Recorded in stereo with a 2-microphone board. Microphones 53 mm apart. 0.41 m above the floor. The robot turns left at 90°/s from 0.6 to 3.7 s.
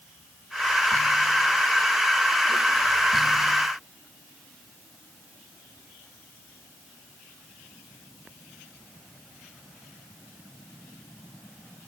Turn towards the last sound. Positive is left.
No sound to turn to.